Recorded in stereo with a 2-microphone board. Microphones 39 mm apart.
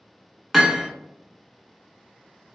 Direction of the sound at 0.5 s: Centre (ahead or behind).